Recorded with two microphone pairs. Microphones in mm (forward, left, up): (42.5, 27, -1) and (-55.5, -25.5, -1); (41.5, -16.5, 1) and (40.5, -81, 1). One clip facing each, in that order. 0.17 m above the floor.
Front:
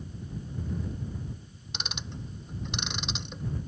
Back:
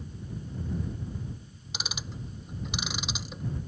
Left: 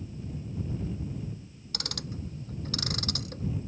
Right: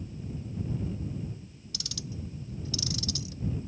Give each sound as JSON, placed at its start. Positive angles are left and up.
{"t": 1.7, "sound": "ticking", "azimuth_deg": 120}